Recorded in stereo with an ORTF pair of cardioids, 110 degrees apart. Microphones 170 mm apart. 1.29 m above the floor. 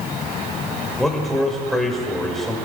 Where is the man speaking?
Straight ahead, 2.5 m.